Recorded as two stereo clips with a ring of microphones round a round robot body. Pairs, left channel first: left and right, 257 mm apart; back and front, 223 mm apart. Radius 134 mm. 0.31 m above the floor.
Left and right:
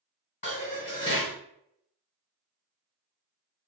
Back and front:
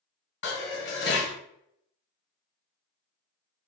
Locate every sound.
0.4 s dishes clattering: 150° left, 1.8 m